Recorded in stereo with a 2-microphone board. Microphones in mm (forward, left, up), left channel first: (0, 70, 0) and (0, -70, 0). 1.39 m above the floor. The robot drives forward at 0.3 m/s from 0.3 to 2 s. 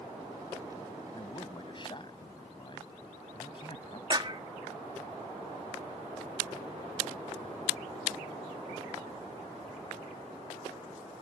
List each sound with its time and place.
1.1 s a man speaking: 35° left (ahead or behind)
4.1 s a clap: 35° right (ahead or behind)